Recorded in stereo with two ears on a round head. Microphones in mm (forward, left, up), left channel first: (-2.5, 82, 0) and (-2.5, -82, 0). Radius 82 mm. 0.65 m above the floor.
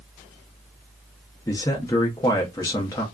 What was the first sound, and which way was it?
A man speaking, 20° left (ahead or behind).